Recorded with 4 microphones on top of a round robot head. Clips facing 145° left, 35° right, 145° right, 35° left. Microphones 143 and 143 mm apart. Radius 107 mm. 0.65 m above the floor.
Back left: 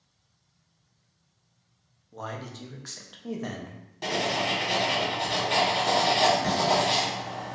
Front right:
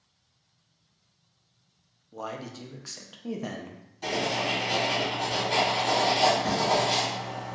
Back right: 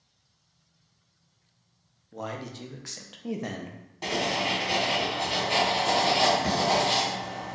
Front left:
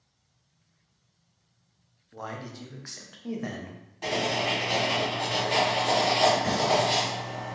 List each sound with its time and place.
2.1 s a man speaking: 105° right, 0.5 m
4.0 s writing: 160° left, 1.5 m